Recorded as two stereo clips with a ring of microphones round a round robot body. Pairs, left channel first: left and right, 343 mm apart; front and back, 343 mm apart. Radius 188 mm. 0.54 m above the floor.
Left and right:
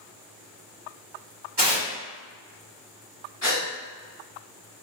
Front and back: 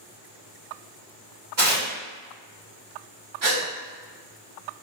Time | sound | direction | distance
1.6 | tearing paper | 150° right | 1.7 m
3.4 | a gasp | 165° left | 1.8 m